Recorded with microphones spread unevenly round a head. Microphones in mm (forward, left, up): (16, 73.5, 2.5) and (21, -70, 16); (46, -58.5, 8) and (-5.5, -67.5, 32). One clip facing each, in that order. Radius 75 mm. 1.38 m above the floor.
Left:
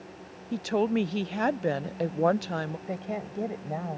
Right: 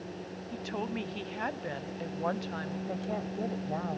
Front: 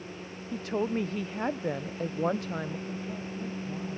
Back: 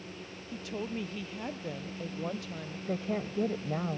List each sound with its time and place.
0.5 s a woman speaking: 65° left
2.9 s a woman speaking: 165° left